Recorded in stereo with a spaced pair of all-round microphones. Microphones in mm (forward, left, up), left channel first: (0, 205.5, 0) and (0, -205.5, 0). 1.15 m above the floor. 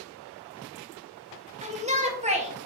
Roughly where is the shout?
Centre.